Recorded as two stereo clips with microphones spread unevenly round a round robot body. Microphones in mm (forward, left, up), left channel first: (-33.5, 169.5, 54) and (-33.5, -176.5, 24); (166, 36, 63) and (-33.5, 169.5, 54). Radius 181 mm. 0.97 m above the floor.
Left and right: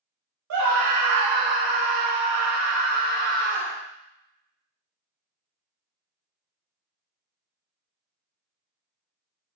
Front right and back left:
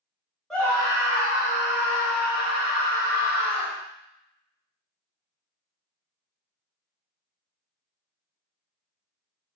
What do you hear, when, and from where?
0.5 s a scream: 125° right, 1.1 m; by 3.8 s 40° right, 1.7 m